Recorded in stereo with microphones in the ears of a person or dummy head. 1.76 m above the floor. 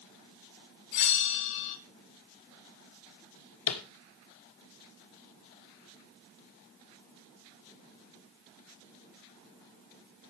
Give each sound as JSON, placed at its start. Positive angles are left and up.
{"t": 0.9, "sound": "a bell", "side_deg": 60, "distance_m": 1.3}
{"t": 3.7, "sound": "tapping", "side_deg": 75, "distance_m": 1.4}